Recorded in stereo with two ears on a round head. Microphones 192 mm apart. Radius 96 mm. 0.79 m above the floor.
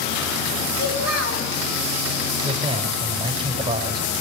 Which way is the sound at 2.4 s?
20° right (ahead or behind).